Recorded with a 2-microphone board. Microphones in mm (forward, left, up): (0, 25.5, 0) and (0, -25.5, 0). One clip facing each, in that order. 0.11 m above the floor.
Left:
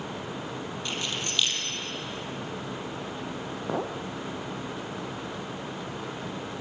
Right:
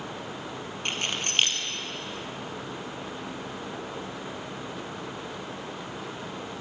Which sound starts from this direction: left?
A clink, at 3.7 s.